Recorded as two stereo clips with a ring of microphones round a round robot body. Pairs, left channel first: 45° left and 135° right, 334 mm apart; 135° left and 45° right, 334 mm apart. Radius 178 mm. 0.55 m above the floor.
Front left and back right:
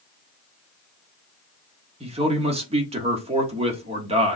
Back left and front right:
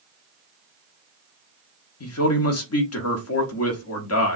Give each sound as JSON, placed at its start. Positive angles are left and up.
{"t": 2.0, "sound": "a man speaking", "azimuth_deg": 160, "distance_m": 1.4}